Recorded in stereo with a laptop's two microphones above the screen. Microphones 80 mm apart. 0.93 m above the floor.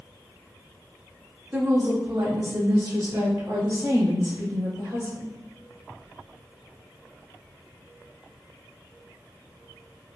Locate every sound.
1.5 s a woman speaking: 25° right (ahead or behind), 0.8 m; by 5.3 s 75° right (ahead or behind), 4 m